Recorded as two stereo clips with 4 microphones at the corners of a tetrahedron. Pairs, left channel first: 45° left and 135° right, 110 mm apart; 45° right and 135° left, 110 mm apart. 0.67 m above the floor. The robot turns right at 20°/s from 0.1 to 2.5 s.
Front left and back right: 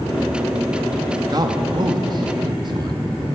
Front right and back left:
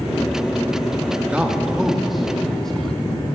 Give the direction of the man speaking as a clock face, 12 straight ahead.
5 o'clock.